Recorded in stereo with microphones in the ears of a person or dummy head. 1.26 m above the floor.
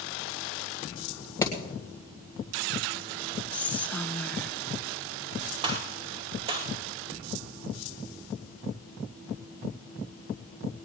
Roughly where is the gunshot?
Right.